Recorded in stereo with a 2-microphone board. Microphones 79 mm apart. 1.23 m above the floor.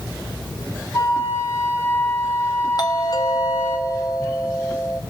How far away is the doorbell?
About 1.4 m.